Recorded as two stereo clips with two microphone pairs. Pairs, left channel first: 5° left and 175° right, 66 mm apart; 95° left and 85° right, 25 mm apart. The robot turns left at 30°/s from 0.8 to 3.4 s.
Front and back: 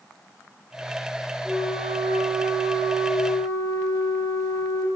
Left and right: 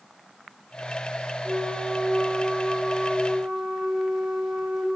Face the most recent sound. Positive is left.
turn(degrees=-165)